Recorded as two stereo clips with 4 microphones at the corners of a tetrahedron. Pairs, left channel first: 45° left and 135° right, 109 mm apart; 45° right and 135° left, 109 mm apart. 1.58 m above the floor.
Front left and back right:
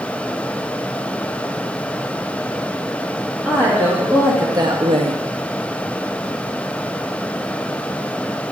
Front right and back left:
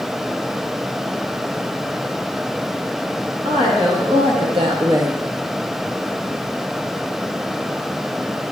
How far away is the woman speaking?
About 3 m.